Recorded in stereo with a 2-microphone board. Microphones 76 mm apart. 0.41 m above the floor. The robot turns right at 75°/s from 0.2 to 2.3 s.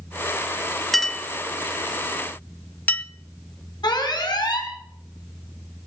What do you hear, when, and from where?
0.9 s a clink: centre (ahead or behind), 0.5 m; by 3.0 s 20° left (ahead or behind), 0.5 m
3.8 s an alarm: 65° left (ahead or behind), 4 m